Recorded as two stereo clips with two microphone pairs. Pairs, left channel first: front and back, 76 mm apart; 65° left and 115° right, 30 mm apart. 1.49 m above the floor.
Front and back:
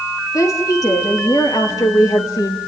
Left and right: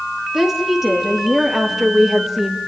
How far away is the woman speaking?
About 3.5 m.